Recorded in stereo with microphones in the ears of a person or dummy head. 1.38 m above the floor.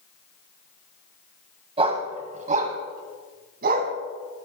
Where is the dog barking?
35° right (ahead or behind), 2.5 m; by 3.9 s 55° right (ahead or behind), 3 m.